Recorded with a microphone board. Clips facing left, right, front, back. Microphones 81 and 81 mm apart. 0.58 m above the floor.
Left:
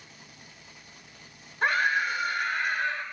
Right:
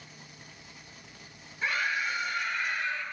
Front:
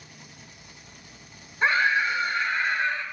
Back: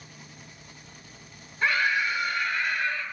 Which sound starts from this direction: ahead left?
A scream, at 1.6 s.